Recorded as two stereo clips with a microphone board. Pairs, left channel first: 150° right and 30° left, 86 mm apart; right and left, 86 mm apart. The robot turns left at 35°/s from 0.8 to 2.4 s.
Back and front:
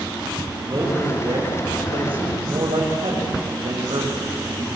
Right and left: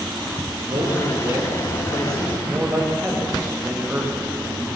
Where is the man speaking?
80° left, 7.5 m; by 4.7 s 20° left, 7.5 m.